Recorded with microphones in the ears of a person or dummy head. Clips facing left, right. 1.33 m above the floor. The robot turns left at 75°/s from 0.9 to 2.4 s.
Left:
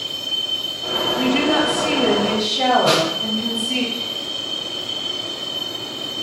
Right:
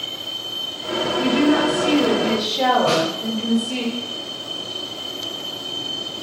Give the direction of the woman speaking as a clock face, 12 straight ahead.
9 o'clock.